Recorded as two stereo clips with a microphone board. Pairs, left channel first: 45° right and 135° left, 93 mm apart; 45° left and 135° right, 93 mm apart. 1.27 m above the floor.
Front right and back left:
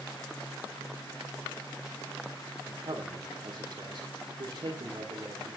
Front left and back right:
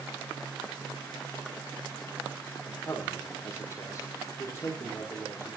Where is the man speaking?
105° left, 3.5 m.